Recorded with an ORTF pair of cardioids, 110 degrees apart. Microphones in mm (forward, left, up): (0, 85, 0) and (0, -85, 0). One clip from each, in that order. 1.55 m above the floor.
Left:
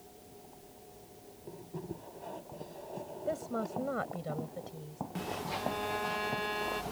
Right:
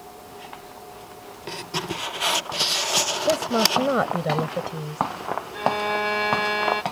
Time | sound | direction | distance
3.3 | a woman speaking | 65° right | ?
5.5 | a violin | 65° right | ?